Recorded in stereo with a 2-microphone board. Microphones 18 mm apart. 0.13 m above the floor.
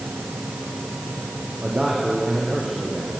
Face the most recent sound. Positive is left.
turn(degrees=-40)  # may be behind; listen again after turning